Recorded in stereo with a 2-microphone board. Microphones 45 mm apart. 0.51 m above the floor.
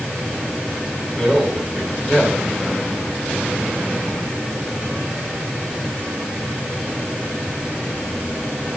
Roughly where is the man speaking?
Centre.